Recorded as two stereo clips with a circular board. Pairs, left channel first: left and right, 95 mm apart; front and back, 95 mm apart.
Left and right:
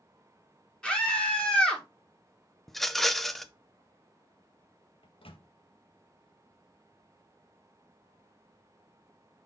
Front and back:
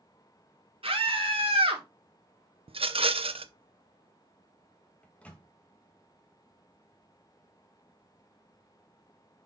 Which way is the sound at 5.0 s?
75° left.